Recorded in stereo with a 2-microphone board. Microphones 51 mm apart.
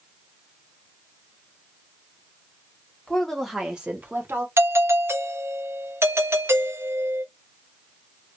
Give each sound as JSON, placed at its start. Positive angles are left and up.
{"t": 3.1, "sound": "a woman speaking", "side_deg": 10, "distance_m": 2.0}
{"t": 4.6, "sound": "a doorbell", "side_deg": -60, "distance_m": 0.9}